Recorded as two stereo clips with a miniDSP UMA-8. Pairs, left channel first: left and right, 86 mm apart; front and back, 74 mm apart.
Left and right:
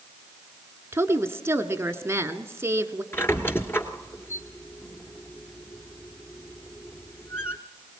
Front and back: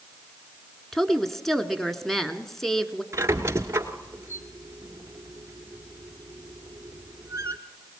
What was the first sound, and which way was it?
A woman speaking, 80° right.